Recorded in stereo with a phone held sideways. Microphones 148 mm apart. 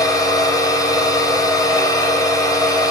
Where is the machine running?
25° left (ahead or behind), 4.5 m.